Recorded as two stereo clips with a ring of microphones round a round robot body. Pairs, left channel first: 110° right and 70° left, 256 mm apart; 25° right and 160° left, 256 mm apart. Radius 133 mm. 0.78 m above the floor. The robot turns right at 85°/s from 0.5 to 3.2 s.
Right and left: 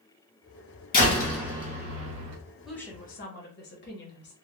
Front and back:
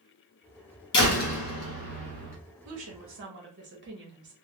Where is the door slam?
60° right, 1.2 m; by 2.4 s 60° left, 1.2 m.